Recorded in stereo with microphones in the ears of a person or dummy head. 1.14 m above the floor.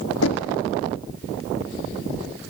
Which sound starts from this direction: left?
Knocking, at 0.2 s.